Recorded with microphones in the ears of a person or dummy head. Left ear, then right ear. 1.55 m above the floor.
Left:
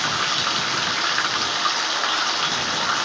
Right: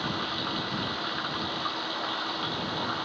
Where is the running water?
70° left (ahead or behind).